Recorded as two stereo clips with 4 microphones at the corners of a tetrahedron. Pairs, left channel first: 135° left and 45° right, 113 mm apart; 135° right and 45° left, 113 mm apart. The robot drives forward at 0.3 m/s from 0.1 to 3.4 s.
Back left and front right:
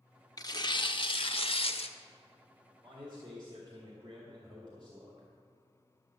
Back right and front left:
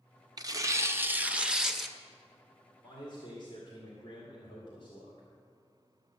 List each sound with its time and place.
0.4 s tearing paper: 90° left, 0.6 m; by 2.0 s 135° left, 0.8 m
2.8 s a man speaking: 85° right, 2.0 m; by 5.3 s 90° right, 2.0 m